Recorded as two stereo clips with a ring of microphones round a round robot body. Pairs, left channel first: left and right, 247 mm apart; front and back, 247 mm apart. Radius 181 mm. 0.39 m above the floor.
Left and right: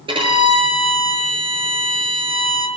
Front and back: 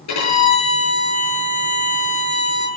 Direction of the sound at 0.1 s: 20° right.